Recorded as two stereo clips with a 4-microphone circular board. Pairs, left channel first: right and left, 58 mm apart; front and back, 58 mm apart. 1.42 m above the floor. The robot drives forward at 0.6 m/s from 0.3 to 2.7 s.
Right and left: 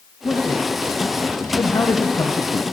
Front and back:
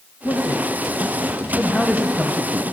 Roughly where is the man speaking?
Ahead right.